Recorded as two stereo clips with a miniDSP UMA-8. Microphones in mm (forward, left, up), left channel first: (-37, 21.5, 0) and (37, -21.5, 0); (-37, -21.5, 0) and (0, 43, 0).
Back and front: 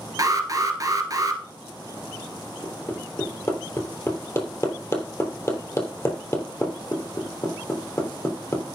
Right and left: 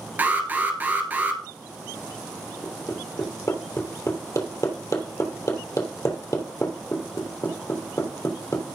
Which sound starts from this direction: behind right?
Hammering, at 2.6 s.